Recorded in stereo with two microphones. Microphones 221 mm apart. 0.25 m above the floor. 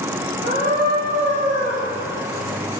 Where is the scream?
45° right (ahead or behind), 2.5 m.